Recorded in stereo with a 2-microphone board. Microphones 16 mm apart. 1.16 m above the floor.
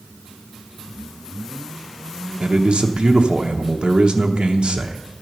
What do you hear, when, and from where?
2.4 s a man speaking: 75° right (ahead or behind), 0.8 m